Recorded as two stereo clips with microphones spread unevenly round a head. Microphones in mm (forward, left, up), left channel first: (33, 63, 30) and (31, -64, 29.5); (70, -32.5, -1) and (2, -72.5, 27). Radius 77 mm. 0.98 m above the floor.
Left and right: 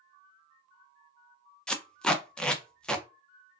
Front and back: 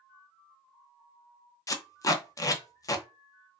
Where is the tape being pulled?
5° left, 0.6 m.